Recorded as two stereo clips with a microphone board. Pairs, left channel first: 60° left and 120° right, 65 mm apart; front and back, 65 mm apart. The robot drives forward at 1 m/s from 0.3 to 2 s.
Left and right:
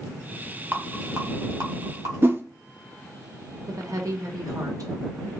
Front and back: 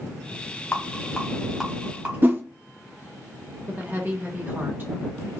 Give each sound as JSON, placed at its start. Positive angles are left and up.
{"t": 0.7, "sound": "a rattle", "azimuth_deg": -55, "distance_m": 1.3}
{"t": 2.2, "sound": "a whoosh", "azimuth_deg": -145, "distance_m": 0.5}
{"t": 3.7, "sound": "a woman speaking", "azimuth_deg": -125, "distance_m": 1.0}